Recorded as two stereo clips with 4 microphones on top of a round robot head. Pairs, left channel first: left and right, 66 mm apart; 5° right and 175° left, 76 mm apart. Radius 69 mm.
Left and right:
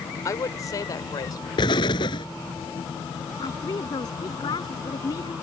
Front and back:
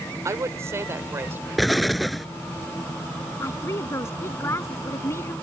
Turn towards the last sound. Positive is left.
turn(degrees=50)